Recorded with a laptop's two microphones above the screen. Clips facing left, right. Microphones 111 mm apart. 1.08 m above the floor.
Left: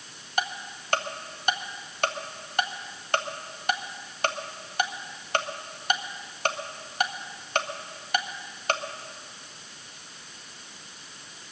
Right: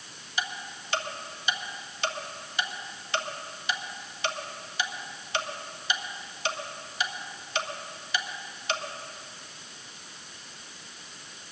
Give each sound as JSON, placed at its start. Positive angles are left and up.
{"t": 0.4, "sound": "ticking", "side_deg": 50, "distance_m": 0.7}